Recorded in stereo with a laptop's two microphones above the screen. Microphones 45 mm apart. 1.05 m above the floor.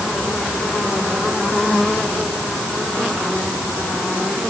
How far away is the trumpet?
I don't hear a trumpet.